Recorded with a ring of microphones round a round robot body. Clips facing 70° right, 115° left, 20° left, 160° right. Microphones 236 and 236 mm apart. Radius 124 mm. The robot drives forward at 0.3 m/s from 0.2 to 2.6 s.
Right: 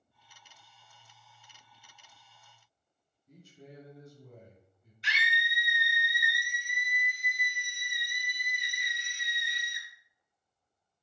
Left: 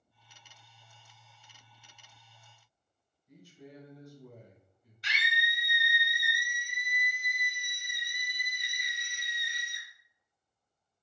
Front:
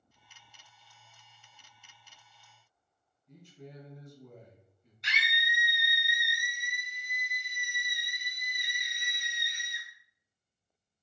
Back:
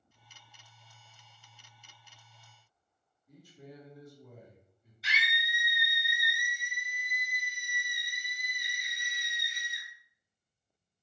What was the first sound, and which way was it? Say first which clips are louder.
A man speaking: left 1 dB, front 1 dB; 85° right.